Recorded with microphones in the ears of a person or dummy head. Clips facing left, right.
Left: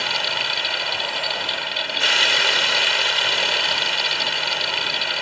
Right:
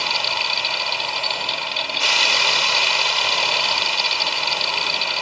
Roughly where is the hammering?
I don't hear hammering.